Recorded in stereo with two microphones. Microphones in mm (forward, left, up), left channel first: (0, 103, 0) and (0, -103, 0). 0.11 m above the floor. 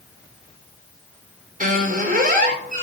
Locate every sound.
1.6 s a squeak: 45° right (ahead or behind), 2.5 m